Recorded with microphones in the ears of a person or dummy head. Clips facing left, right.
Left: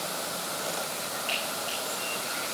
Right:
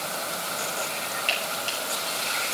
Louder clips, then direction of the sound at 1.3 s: Right 2 dB; 85° right.